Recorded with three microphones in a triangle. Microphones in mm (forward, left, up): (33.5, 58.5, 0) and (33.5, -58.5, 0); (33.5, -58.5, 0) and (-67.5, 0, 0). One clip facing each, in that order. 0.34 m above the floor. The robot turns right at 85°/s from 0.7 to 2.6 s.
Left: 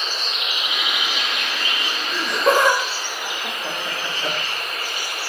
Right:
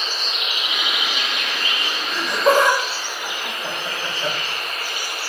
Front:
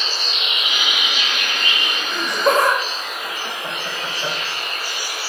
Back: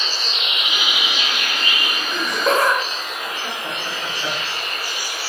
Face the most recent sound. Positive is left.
turn(degrees=-45)